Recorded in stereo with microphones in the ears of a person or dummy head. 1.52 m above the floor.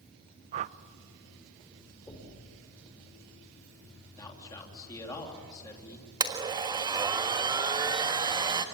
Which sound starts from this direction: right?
A whoosh, at 0.5 s.